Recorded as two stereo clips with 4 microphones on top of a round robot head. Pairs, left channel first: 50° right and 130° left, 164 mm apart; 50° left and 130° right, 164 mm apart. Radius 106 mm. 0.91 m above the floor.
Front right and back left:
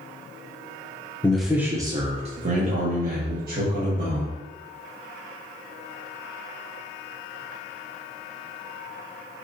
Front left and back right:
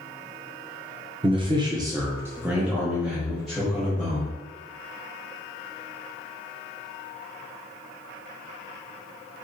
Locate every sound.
1.2 s a man speaking: 120° right, 0.7 m; by 4.4 s 135° left, 1.9 m